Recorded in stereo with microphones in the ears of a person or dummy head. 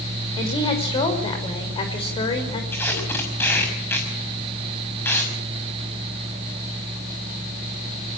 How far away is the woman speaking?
About 6 m.